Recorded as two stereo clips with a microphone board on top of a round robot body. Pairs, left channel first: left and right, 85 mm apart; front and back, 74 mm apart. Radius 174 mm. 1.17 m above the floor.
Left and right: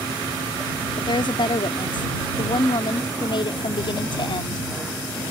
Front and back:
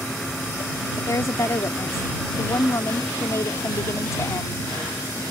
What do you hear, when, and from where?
1.0 s a woman speaking: 55° left